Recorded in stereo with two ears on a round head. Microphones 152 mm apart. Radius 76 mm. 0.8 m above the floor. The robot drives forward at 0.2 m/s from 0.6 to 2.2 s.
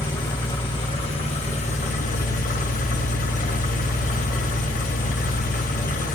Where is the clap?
I don't hear a clap.